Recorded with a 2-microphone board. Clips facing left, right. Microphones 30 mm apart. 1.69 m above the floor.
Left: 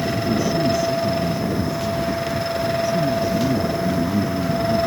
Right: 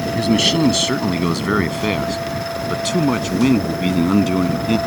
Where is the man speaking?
80° right; by 4.8 s 85° right.